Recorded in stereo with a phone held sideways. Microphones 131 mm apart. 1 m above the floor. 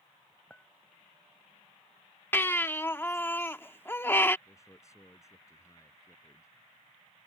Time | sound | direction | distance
0.5 | a clink | 10° left (ahead or behind) | ?
2.3 | a baby crying | 15° left (ahead or behind) | ?
4.5 | a man speaking | 25° left (ahead or behind) | ?